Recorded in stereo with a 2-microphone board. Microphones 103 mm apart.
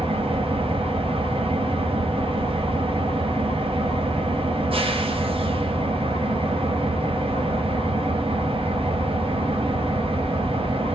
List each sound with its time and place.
0.0 s an engine running: 65° right (ahead or behind), 0.7 m